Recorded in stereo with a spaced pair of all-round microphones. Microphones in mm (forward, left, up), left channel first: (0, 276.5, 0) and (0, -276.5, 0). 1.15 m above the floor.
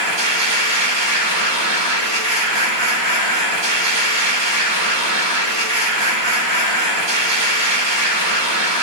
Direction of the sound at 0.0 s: 50° right (ahead or behind).